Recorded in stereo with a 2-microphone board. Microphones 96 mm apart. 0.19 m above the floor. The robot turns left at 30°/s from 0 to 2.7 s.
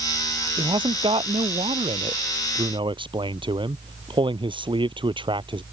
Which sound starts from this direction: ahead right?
A man speaking, at 0.6 s.